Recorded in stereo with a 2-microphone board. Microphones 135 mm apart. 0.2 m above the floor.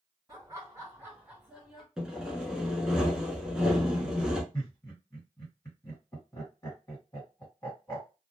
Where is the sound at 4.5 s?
25° left (ahead or behind), 1.6 m.